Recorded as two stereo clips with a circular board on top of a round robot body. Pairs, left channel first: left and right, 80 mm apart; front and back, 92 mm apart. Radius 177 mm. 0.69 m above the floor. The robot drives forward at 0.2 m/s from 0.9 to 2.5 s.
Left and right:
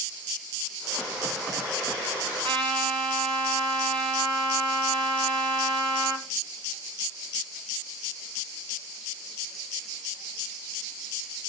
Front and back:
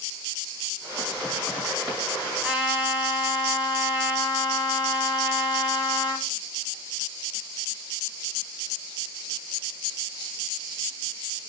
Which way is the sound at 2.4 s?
105° right.